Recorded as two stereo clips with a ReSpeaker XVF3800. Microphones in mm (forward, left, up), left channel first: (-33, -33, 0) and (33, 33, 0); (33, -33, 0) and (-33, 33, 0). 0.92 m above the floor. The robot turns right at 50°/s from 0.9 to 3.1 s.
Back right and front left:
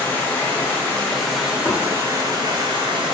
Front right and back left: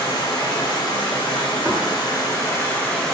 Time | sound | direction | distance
0.0 | running water | 70° right | 0.7 m
1.6 | knocking | 165° right | 0.6 m